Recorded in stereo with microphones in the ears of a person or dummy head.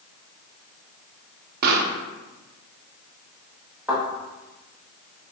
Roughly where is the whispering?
No whispering in this recording.